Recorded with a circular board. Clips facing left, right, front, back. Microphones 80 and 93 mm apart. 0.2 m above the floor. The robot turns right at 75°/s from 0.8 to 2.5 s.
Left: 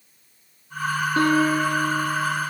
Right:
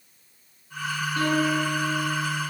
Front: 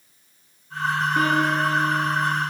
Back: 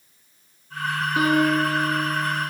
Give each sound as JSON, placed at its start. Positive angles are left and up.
{"t": 1.2, "sound": "a piano", "azimuth_deg": 100, "distance_m": 1.1}